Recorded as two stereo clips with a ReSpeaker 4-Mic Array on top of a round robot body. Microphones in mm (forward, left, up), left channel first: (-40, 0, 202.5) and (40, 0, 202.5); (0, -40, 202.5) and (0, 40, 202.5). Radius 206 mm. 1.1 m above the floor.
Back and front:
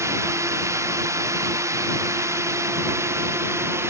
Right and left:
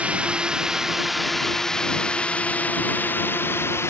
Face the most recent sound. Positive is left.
turn(degrees=-45)